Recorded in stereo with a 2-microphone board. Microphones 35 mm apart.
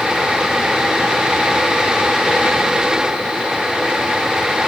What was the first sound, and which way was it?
Only background noise.